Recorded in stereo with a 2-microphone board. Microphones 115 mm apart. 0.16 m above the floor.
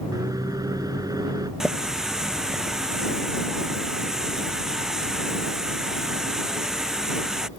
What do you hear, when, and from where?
0.1 s a microwave: 35° right (ahead or behind)
1.6 s a running tap: 5° right (ahead or behind)